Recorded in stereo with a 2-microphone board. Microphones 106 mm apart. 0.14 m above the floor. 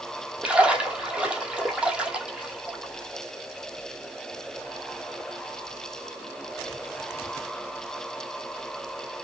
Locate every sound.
0.4 s a splash: 10° right (ahead or behind), 1.0 m